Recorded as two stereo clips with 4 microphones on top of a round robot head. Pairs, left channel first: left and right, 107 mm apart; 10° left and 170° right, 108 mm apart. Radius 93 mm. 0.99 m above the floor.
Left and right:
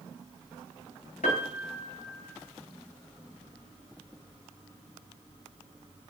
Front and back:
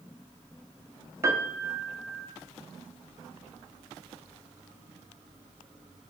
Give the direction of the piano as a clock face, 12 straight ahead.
8 o'clock.